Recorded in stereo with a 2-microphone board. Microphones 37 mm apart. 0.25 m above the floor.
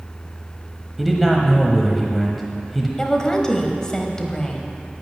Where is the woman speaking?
20° left (ahead or behind), 1.1 m.